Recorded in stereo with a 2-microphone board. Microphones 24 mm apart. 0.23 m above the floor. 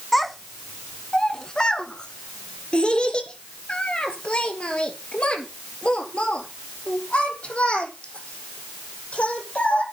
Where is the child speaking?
Centre (ahead or behind), 1.0 m; by 9.8 s 65° left (ahead or behind), 5.5 m.